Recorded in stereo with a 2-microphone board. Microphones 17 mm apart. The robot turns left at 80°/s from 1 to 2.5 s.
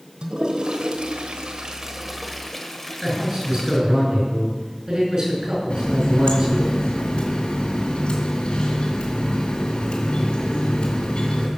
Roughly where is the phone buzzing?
No phone buzzing in this recording.